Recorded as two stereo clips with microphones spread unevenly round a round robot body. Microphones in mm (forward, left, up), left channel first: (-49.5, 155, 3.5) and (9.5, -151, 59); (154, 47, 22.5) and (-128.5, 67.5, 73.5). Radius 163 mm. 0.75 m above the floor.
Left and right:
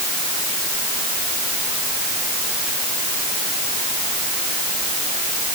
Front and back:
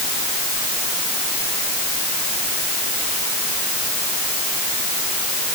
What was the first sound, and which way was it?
Only background noise.